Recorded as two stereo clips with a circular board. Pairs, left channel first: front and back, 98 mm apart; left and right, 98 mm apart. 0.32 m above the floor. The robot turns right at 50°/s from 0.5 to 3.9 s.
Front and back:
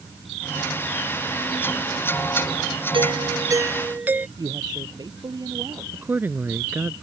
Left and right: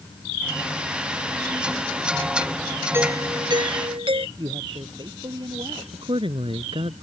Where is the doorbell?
155° right; by 4.3 s 110° right.